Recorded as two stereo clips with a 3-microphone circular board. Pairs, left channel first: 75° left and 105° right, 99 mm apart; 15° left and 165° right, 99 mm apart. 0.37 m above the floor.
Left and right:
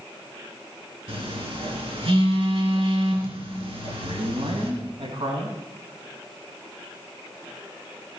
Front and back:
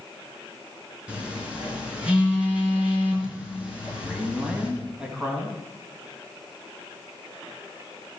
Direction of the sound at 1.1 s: 85° right.